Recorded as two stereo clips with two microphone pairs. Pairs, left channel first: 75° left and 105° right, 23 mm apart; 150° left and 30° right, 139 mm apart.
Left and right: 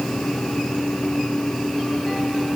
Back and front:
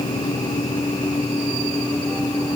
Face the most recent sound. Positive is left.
No sound to turn to.